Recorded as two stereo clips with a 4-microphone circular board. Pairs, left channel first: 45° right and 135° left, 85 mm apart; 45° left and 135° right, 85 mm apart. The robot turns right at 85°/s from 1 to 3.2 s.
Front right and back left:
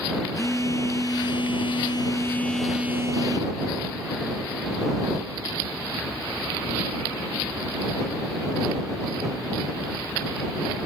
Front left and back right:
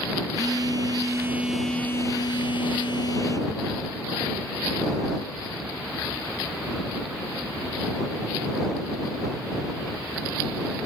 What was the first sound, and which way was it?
A phone buzzing, 95° right.